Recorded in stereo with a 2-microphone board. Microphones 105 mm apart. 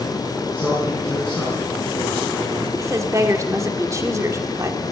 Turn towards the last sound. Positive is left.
turn(degrees=-30)  # may be behind; listen again after turning